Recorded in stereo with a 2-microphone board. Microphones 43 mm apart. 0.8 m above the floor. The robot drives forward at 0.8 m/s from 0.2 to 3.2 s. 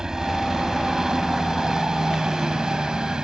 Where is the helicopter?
15° right (ahead or behind).